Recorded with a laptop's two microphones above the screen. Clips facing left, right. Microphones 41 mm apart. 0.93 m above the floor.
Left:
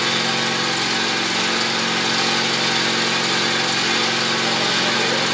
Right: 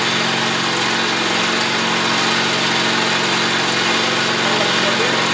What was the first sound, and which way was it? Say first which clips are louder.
An engine running: right 3 dB; 50° right (ahead or behind).